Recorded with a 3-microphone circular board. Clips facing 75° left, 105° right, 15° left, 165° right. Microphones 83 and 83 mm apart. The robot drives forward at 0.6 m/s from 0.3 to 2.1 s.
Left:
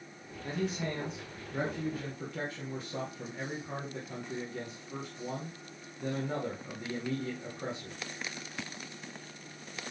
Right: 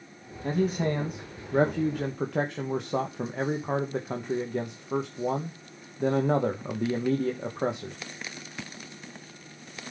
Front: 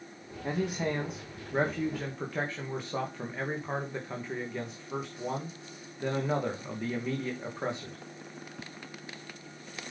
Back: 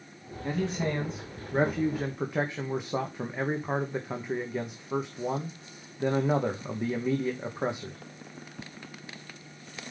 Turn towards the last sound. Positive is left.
turn(degrees=-90)